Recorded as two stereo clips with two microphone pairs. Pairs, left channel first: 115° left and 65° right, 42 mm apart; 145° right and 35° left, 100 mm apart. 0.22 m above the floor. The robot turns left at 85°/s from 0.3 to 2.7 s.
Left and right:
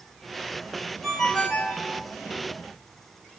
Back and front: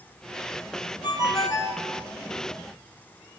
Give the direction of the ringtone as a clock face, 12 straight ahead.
5 o'clock.